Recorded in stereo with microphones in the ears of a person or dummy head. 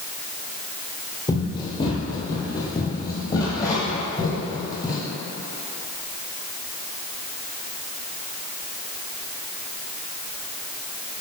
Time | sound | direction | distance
1.3 | running footsteps | 35° left (ahead or behind) | 2.5 m